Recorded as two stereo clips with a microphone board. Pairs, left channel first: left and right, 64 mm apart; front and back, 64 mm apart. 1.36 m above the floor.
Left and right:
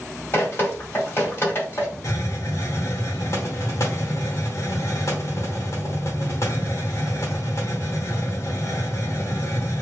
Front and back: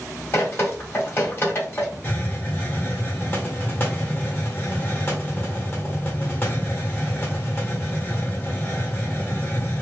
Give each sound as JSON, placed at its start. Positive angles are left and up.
{"t": 0.3, "sound": "dripping", "azimuth_deg": 45, "distance_m": 1.5}
{"t": 2.0, "sound": "a hiss", "azimuth_deg": 55, "distance_m": 1.2}